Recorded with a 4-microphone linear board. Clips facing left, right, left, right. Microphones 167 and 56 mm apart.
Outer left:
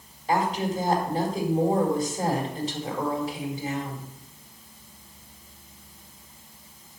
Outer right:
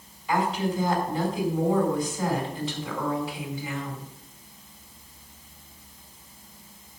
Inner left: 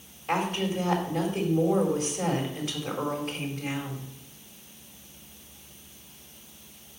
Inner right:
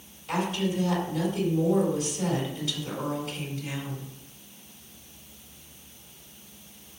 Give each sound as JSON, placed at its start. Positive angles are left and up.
{"t": 0.3, "sound": "a woman speaking", "side_deg": 45, "distance_m": 4.0}